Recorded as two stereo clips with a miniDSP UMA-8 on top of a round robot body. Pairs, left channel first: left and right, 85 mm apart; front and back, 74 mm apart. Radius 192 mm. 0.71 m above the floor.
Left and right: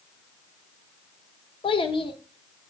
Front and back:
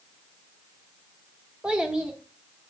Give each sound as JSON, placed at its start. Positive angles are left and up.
{"t": 1.6, "sound": "a child speaking", "azimuth_deg": 105, "distance_m": 1.0}